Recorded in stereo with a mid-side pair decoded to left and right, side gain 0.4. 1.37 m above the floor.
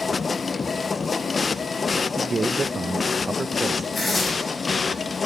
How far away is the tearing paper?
About 8.5 m.